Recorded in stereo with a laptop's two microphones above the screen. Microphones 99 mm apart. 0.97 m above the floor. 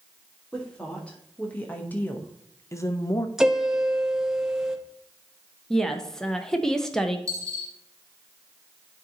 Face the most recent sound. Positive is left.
turn(degrees=-30)  # may be behind; listen again after turning